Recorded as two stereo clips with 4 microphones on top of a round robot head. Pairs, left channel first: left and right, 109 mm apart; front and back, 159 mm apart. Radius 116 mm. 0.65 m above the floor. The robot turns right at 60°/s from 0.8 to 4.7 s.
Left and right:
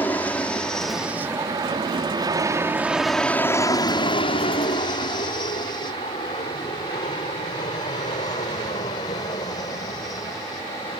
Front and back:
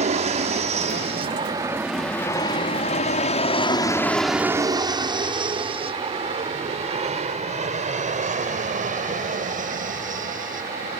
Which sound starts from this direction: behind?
An aircraft, at 0.0 s.